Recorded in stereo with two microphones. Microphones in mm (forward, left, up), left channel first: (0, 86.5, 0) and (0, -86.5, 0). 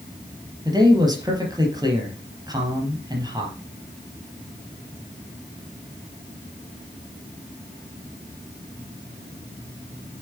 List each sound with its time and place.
0.7 s a man speaking: 25° right (ahead or behind), 4 m